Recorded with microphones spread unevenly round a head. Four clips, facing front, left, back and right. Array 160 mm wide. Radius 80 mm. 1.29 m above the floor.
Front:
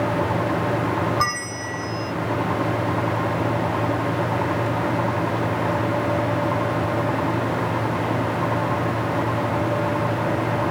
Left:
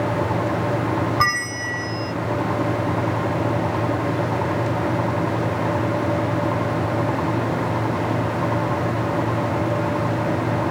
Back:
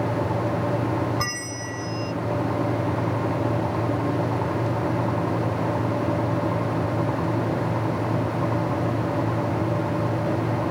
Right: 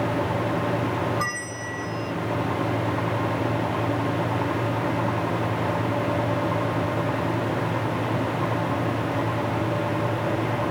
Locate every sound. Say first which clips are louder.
1.2 s a bell: left 7 dB, front 5 dB; 75° left